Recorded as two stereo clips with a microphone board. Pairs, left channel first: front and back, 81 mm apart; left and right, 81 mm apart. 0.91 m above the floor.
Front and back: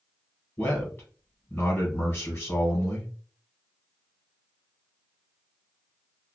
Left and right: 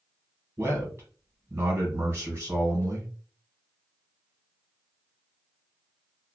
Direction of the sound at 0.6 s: 55° right.